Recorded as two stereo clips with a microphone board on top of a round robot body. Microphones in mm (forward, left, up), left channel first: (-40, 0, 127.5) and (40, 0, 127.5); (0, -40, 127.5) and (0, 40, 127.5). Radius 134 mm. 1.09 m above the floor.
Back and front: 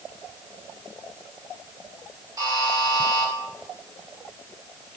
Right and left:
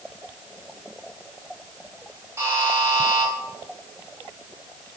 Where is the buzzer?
35° left, 4 m.